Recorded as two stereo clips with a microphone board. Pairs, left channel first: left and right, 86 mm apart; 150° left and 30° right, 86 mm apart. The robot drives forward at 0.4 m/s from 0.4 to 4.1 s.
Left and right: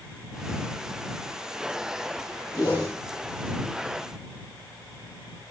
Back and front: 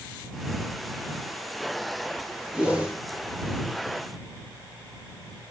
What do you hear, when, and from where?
2.5 s a whoosh: 50° left, 9.5 m